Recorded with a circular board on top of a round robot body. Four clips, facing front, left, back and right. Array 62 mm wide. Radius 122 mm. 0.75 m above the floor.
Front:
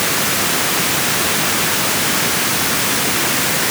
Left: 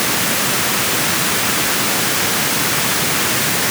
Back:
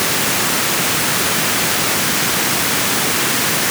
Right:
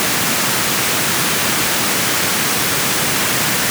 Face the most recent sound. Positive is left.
No sound to turn to.